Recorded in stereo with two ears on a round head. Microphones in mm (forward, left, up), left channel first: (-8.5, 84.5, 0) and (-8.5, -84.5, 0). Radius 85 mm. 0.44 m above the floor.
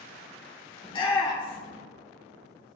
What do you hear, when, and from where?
0.8 s a shout: 25° left (ahead or behind), 1.2 m